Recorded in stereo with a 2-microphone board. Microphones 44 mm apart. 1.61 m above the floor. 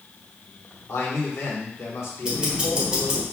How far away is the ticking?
About 1.2 m.